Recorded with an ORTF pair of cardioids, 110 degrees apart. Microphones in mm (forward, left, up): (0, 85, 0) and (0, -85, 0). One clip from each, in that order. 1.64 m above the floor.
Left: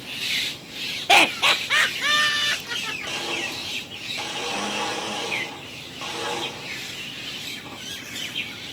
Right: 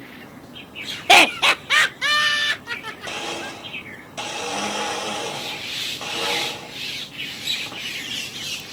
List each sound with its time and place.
1.1 s laughter: 20° right, 0.7 m; by 3.5 s 10° right, 3.5 m
3.1 s a blender: 25° right, 2.5 m